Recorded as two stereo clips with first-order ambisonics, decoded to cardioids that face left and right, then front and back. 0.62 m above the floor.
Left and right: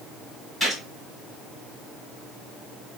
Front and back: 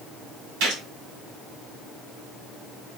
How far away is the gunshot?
About 1.9 m.